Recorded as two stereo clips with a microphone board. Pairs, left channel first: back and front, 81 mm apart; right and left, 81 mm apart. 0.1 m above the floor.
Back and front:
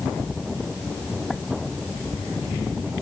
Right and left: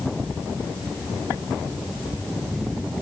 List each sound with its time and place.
Only background noise.